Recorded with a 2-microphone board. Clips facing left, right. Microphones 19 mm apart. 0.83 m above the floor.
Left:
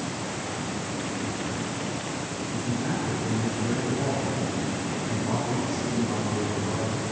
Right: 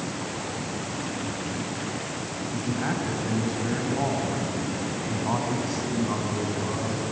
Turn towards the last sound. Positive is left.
turn(degrees=-30)  # may be behind; listen again after turning